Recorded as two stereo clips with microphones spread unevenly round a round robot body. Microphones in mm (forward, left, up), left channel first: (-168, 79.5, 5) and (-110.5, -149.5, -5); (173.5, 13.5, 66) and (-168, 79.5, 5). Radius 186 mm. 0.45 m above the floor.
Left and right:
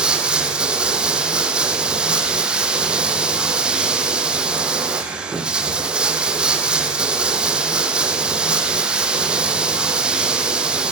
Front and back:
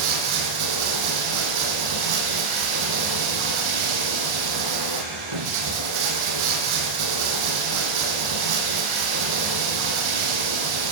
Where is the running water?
160° right, 3.5 m.